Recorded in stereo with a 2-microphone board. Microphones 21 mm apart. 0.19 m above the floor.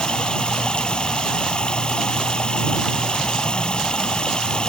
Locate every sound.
0.0 s running water: 40° left (ahead or behind)